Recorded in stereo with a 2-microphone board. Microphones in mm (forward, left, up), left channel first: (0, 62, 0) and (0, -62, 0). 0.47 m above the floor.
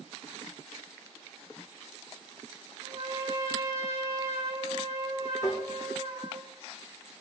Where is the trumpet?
55° right (ahead or behind), 2.5 m.